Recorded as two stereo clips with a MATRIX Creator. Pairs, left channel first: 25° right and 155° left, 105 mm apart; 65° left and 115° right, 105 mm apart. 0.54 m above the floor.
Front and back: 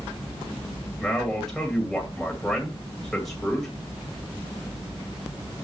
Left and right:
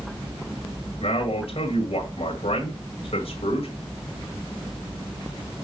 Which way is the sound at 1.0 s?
65° left.